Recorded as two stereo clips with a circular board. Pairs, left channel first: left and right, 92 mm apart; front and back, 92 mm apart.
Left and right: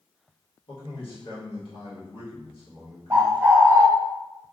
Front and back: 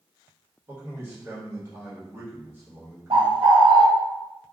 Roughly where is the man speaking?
Behind left.